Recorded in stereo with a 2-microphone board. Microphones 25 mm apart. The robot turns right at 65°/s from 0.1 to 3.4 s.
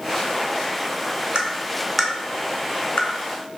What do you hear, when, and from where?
1.4 s tapping: 40° right (ahead or behind), 0.5 m; by 3.1 s 65° left (ahead or behind), 0.5 m